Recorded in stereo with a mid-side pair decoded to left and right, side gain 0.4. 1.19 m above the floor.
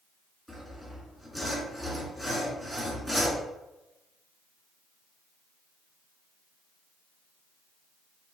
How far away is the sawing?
About 1.6 m.